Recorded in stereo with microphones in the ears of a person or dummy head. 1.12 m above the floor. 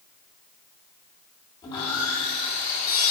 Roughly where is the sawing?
Left.